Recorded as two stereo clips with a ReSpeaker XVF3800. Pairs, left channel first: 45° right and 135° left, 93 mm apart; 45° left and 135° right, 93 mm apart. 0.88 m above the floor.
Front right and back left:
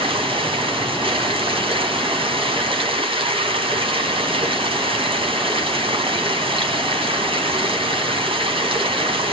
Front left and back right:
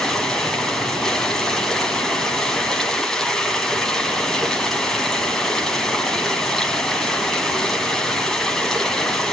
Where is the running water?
130° left, 2.5 m.